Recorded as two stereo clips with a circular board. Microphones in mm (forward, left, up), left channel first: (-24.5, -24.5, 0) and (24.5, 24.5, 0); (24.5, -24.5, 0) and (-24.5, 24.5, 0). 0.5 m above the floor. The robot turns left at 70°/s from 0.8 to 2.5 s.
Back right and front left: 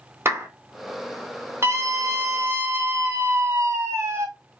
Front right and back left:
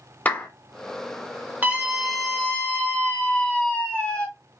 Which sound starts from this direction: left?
A scream, at 1.6 s.